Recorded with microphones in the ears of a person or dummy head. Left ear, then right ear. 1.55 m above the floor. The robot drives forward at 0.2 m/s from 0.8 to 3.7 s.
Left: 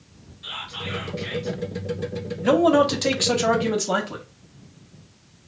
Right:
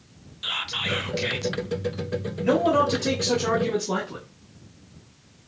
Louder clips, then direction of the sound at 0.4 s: Right 5 dB; 50° right (ahead or behind).